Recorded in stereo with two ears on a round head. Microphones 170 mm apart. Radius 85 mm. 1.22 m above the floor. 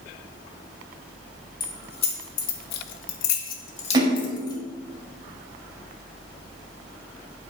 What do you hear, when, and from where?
1.6 s keys jangling: 25° left (ahead or behind), 2 m; by 4.6 s 20° left (ahead or behind), 2 m
3.9 s a splash: 25° right (ahead or behind), 3 m